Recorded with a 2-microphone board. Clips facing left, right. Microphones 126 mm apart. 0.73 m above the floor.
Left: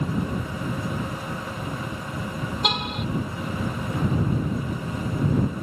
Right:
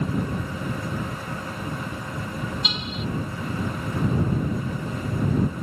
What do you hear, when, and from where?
2.6 s a car horn: 60° left (ahead or behind)